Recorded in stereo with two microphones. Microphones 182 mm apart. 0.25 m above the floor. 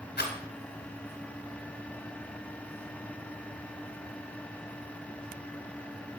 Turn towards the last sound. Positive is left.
turn(degrees=65)  # may be behind; listen again after turning